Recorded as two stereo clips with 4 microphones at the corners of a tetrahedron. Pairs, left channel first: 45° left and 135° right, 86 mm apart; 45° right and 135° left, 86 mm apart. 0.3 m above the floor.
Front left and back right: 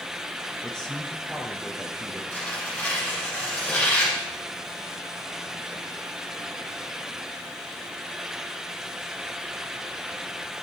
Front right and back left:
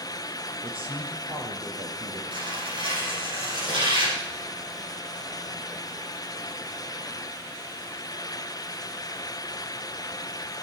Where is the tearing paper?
115° left, 8 m.